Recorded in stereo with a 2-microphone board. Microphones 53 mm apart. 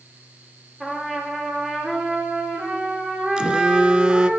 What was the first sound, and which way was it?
A trumpet, 5° right (ahead or behind).